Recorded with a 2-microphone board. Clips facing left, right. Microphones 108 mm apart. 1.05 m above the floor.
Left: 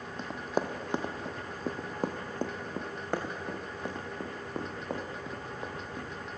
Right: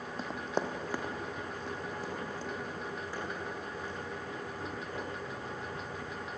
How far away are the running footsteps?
About 1.6 m.